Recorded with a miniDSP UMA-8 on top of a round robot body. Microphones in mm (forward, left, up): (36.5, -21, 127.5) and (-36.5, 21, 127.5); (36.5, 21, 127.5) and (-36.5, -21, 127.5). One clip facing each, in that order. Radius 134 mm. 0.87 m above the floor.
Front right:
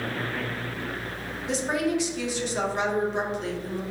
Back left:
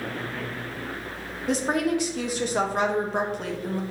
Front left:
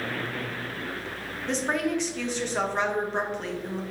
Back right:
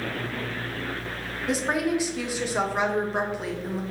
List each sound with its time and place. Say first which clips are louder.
1.5 s a woman speaking: back left 2 dB, back right 2 dB; 130° left, 1.5 m